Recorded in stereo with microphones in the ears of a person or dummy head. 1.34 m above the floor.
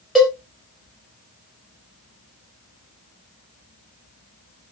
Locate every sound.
0.1 s a cowbell: centre (ahead or behind), 0.8 m